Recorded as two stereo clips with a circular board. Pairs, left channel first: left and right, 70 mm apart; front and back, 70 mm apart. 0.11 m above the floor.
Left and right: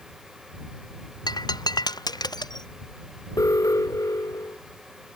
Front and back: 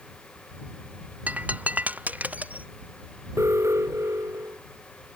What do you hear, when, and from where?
1.3 s breaking glass: 110° left
3.4 s an alarm: 130° left